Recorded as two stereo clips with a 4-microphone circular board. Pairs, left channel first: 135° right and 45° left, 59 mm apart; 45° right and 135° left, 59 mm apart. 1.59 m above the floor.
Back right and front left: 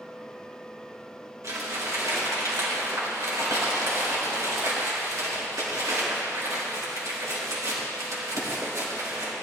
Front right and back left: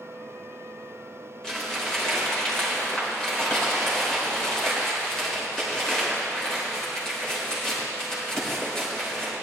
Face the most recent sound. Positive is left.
turn(degrees=30)